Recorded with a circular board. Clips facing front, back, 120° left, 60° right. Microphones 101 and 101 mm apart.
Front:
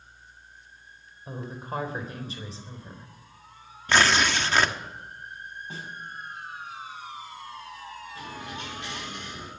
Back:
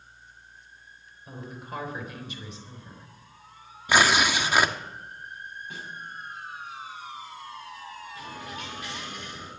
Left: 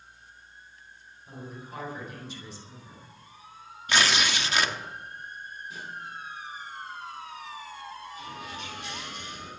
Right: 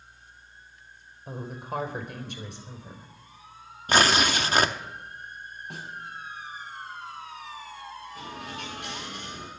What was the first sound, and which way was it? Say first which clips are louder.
A woman speaking: front 4 dB, right 7 dB; 50° right.